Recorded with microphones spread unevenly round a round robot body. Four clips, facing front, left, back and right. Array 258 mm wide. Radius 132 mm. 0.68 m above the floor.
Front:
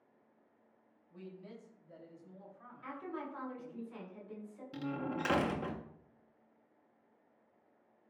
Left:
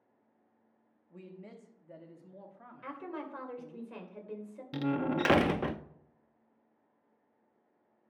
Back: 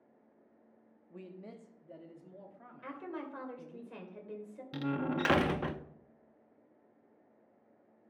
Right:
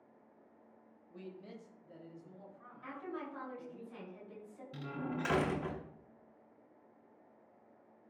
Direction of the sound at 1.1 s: 170° right.